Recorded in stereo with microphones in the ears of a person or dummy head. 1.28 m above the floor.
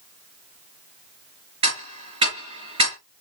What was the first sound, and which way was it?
Ticking, 35° right (ahead or behind).